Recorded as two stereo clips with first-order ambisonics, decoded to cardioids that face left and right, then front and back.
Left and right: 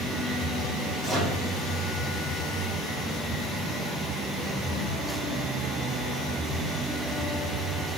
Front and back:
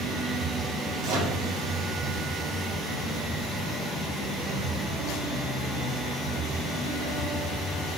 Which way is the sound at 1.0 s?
170° right.